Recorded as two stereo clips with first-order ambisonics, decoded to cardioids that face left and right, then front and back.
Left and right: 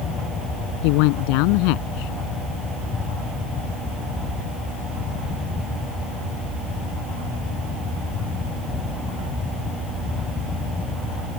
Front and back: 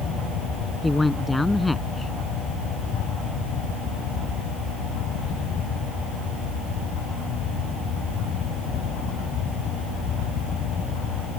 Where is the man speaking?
85° left.